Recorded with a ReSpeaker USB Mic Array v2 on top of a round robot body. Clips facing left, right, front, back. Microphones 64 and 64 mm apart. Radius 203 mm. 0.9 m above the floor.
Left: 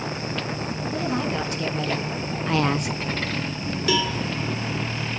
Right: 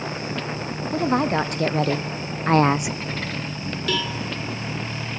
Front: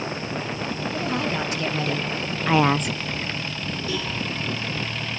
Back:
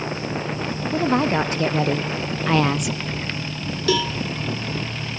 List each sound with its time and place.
0.9 s a woman speaking: 130° right, 2.5 m; by 3.0 s 5° right, 0.9 m
3.9 s a cowbell: 175° left, 2.5 m